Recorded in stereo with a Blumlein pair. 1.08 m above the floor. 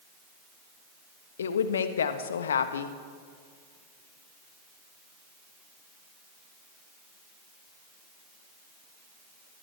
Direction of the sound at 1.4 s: 65° left.